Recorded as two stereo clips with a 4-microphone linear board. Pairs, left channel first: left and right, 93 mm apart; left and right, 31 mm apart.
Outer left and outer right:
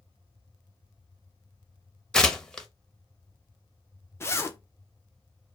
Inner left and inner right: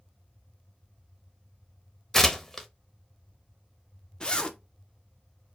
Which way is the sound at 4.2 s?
30° left (ahead or behind).